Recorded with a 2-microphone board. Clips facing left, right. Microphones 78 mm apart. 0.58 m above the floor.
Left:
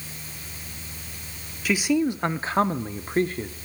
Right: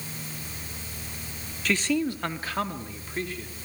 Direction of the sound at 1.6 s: 5° left (ahead or behind).